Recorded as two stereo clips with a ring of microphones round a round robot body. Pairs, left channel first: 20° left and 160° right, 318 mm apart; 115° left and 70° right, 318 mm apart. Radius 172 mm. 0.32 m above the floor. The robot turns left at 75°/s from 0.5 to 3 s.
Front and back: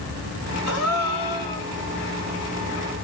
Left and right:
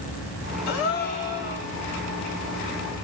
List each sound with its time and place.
0.7 s a gasp: 80° left, 1.7 m; by 1.7 s 5° left, 1.7 m